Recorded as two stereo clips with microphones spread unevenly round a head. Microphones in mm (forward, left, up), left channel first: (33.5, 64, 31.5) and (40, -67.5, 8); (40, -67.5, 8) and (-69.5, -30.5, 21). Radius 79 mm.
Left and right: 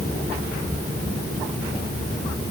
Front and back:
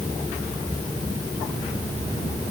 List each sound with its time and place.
Only background noise.